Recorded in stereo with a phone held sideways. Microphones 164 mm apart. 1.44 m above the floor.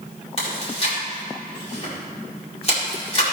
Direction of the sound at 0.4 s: 40° left (ahead or behind).